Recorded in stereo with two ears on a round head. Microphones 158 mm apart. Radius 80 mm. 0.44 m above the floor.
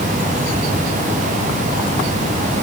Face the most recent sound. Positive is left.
No sound to turn to.